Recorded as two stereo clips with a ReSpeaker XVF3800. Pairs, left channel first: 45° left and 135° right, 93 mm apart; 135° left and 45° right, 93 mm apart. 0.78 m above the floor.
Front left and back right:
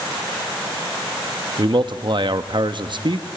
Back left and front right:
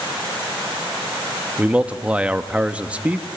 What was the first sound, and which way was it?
A man speaking, 120° right.